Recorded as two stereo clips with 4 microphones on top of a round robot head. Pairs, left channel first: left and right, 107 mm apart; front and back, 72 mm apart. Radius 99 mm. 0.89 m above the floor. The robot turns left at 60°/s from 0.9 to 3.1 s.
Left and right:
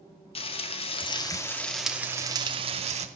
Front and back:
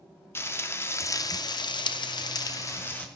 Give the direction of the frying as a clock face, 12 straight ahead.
10 o'clock.